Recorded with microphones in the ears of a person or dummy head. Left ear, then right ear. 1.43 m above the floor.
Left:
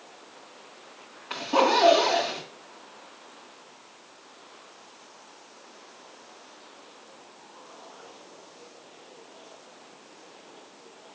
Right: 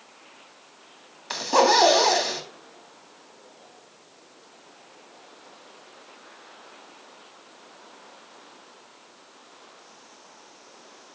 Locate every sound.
1.3 s a zipper: 80° right, 3 m